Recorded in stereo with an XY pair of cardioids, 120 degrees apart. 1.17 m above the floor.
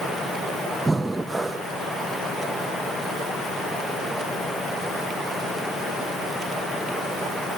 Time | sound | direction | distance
0.8 | breathing | 10° right | 1.0 m